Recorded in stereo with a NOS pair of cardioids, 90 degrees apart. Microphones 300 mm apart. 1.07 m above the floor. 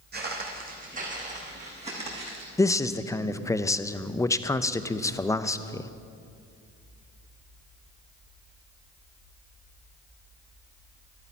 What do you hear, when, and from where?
0.1 s footsteps: 35° right, 3.5 m; by 2.5 s 20° right, 5 m
2.6 s a man speaking: 10° left, 0.6 m